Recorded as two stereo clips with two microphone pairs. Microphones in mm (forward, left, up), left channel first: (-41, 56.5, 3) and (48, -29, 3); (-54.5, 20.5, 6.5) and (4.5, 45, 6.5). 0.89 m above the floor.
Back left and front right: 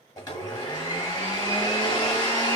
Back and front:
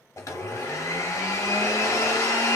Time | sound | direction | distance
0.2 | a blender | 175° right | 1.2 m